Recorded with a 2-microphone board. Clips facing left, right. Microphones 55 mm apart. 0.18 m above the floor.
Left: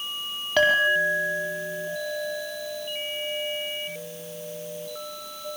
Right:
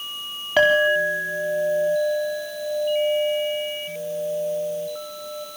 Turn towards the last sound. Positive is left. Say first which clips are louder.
# right 3 dB
turn(degrees=-10)  # may be behind; listen again after turning